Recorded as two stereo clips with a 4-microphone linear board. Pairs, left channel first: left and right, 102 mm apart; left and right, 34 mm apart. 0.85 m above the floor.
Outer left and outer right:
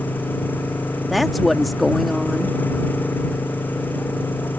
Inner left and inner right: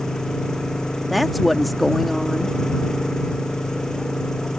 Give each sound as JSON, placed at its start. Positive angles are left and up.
{"t": 0.0, "sound": "an engine running", "side_deg": 20}
{"t": 1.1, "sound": "a woman speaking", "side_deg": 0}